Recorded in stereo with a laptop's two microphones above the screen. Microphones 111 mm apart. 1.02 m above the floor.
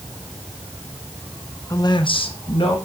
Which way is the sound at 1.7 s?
25° left (ahead or behind).